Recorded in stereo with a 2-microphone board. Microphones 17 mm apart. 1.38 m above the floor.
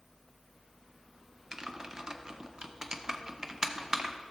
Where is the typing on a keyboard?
40° right (ahead or behind), 0.6 m.